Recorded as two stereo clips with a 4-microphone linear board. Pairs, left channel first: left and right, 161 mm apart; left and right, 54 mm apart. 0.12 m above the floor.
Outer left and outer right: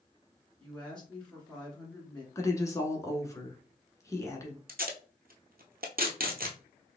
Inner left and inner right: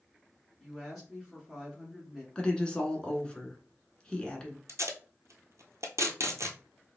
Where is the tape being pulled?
70° right (ahead or behind), 1.0 m.